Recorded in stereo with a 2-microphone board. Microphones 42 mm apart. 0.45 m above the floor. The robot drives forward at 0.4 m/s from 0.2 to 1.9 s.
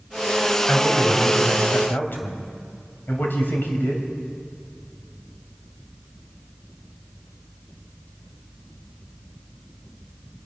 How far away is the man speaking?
About 3 m.